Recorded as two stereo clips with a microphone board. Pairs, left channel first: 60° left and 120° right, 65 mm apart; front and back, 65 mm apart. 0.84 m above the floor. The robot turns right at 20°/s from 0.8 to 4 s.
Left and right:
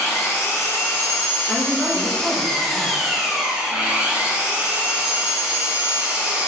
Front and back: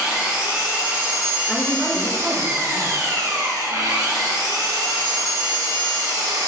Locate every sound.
0.0 s an engine running: 105° left, 1.0 m; by 6.5 s 170° left, 1.0 m
1.5 s a woman speaking: 95° left, 1.4 m; by 3.0 s 125° left, 1.4 m